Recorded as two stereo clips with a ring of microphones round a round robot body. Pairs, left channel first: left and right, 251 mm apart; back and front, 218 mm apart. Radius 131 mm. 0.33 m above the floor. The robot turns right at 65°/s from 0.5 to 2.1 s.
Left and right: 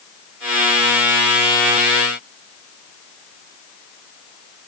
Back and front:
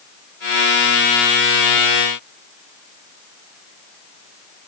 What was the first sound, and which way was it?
Only background noise.